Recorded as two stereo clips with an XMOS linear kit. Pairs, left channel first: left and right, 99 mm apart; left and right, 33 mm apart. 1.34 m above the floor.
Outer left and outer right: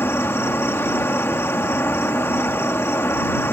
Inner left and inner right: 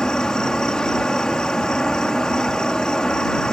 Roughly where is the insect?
Left.